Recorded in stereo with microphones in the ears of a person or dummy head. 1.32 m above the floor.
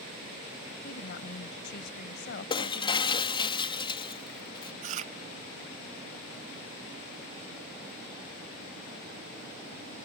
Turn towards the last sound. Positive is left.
turn(degrees=-45)  # may be behind; listen again after turning